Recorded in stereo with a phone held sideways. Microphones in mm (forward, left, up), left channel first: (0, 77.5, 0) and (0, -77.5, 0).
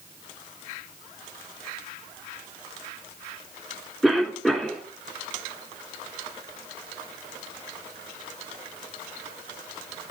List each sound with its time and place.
4.0 s a cough: centre (ahead or behind), 3 m